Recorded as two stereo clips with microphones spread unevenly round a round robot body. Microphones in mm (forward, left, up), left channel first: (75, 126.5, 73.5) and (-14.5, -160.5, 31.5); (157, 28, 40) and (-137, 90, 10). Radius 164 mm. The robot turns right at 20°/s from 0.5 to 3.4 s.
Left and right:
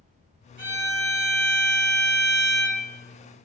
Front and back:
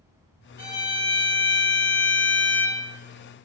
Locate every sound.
0.6 s a violin: 75° right, 1.1 m; by 2.8 s 30° right, 1.1 m